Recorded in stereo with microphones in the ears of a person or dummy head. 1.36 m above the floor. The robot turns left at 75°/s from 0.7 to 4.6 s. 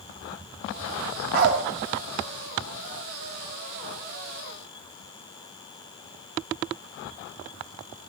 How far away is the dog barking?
About 2.5 m.